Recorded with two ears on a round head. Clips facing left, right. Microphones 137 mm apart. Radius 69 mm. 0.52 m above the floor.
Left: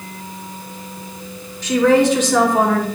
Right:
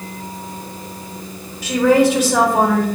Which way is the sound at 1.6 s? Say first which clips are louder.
Even; 10° right (ahead or behind).